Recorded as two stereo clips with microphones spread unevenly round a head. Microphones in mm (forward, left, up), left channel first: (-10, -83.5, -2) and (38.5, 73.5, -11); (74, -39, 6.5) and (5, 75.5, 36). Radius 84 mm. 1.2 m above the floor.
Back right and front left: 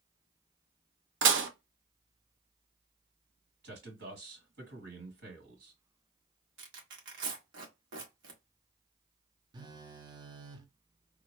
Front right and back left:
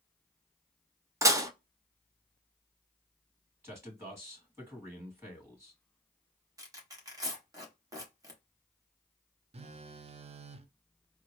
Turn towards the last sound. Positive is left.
turn(degrees=105)